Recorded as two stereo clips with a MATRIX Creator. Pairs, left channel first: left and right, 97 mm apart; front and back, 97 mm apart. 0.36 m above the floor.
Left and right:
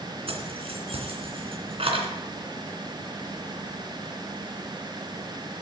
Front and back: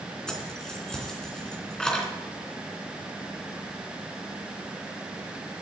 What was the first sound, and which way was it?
Keys jangling, 85° right.